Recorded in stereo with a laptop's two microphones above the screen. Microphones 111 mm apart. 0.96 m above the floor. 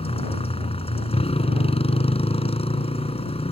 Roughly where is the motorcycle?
Left.